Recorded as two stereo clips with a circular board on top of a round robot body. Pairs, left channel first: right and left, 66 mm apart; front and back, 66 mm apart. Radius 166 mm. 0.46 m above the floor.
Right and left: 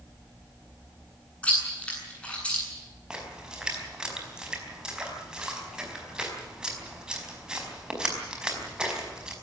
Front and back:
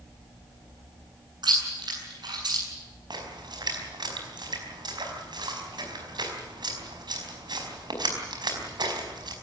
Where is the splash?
170° left, 4.5 m.